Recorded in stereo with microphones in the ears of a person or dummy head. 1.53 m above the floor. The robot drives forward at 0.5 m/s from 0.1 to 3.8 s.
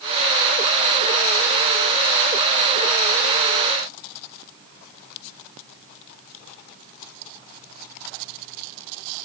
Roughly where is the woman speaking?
No woman speaking in this recording.